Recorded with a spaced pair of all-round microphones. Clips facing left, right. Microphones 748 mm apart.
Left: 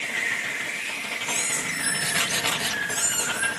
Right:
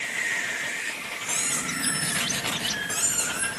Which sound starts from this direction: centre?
A squeak, at 1.2 s.